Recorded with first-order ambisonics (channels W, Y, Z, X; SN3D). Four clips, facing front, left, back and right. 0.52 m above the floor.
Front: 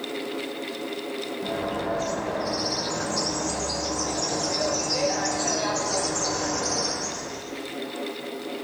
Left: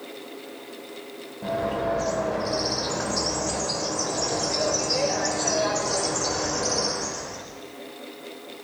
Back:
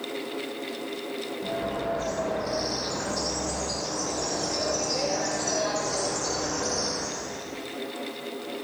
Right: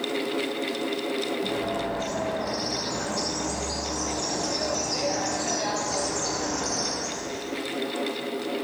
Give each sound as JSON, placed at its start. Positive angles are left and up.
{"t": 1.4, "sound": "a bird", "azimuth_deg": 85, "distance_m": 2.5}